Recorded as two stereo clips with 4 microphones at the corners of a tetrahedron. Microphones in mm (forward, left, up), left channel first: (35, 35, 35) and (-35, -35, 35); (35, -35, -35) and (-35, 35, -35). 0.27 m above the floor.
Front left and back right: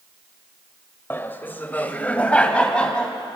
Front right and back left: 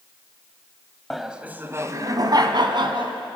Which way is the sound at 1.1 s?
40° left.